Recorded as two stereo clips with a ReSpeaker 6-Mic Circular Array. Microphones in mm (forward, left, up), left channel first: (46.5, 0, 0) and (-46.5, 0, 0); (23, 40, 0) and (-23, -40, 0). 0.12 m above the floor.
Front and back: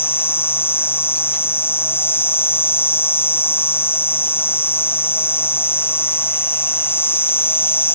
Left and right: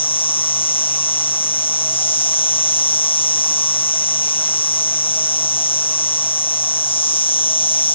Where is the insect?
65° left.